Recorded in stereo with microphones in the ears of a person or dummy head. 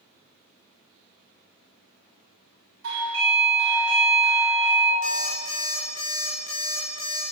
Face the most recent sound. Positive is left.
turn(degrees=45)  # may be behind; listen again after turning